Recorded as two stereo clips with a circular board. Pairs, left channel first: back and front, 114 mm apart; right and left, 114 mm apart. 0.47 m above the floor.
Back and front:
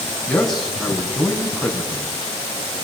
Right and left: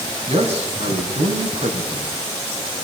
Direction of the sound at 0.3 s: 95° left.